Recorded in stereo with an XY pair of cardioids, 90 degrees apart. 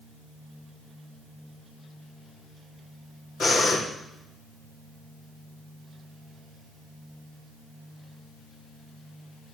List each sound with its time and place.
3.4 s breathing: 65° left, 3.5 m